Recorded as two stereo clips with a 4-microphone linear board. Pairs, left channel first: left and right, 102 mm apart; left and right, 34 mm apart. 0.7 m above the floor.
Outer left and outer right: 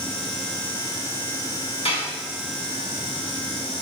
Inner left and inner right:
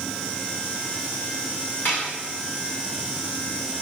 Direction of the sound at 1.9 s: 70° left (ahead or behind).